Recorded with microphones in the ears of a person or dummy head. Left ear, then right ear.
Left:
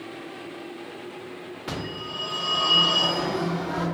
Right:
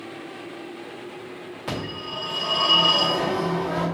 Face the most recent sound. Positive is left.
turn(degrees=-15)  # may be behind; listen again after turning